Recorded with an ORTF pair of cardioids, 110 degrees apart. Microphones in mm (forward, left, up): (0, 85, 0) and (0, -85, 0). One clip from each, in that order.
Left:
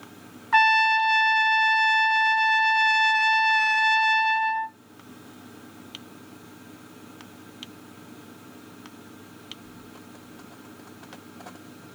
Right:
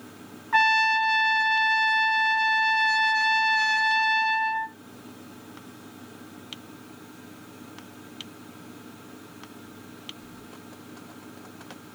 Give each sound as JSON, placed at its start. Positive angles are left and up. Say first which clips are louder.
{"t": 0.5, "sound": "a trumpet", "louder": "left 2 dB", "azimuth_deg": 25, "distance_m": 0.7}